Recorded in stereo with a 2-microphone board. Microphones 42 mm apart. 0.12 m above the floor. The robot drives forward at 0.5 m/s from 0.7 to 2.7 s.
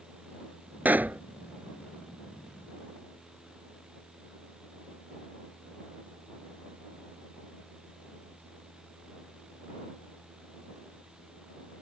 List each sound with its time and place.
0.8 s a pop: 45° right (ahead or behind)